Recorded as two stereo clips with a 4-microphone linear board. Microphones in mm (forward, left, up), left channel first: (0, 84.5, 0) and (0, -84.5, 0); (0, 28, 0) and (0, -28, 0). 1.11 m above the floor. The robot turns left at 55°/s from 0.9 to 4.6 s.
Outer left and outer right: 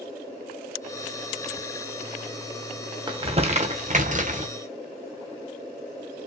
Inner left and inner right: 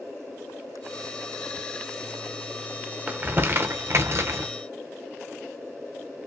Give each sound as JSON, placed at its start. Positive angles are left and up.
{"t": 3.1, "sound": "crumpling", "side_deg": -30, "distance_m": 0.8}